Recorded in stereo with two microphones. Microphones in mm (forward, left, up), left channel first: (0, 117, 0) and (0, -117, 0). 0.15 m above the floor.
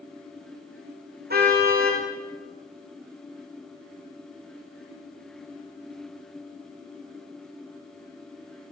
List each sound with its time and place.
1.3 s a car horn: 45° right (ahead or behind), 6 m